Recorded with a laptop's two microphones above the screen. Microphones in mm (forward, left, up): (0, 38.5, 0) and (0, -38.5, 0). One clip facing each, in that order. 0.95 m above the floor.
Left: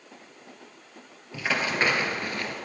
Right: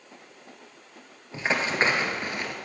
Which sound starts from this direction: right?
Running footsteps, at 1.3 s.